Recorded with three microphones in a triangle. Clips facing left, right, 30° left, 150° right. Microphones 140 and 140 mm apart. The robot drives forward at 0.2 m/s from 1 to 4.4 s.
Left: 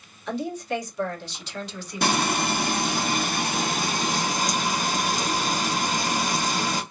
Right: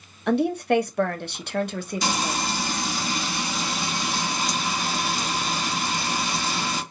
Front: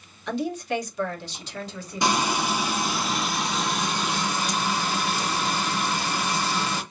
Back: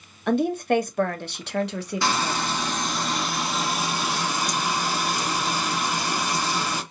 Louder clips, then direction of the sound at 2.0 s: Left 5 dB, front 3 dB; 100° left.